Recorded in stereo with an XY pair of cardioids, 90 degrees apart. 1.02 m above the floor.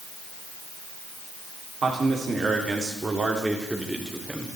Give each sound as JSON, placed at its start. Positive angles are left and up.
{"t": 1.8, "sound": "a man speaking", "azimuth_deg": -50, "distance_m": 3.0}